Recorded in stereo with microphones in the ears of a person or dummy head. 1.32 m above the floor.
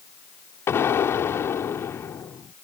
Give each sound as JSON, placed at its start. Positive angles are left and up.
{"t": 0.7, "sound": "an explosion", "side_deg": 15}